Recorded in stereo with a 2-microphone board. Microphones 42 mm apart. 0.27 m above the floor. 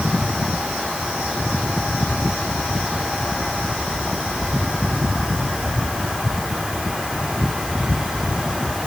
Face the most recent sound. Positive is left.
No sound to turn to.